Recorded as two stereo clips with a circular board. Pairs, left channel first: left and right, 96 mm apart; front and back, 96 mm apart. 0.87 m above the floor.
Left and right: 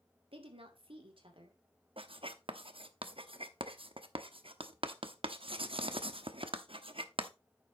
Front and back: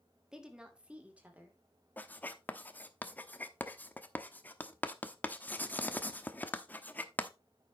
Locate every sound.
0.3 s a woman speaking: 100° right, 2 m; by 1.6 s 110° right, 3 m
2.0 s writing: 75° right, 0.9 m